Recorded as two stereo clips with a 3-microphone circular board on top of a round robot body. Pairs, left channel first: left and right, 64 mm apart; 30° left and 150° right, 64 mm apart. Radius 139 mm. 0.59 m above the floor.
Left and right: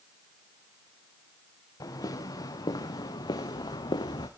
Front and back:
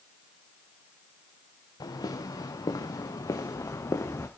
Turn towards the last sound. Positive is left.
turn(degrees=85)